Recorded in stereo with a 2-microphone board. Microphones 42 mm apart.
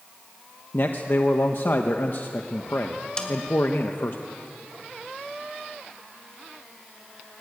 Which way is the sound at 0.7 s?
55° left (ahead or behind).